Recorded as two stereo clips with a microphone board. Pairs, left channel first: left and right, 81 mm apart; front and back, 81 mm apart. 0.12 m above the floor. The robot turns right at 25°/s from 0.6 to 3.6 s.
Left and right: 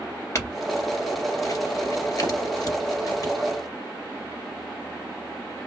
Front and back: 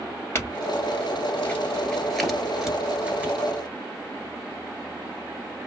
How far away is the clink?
About 1.3 m.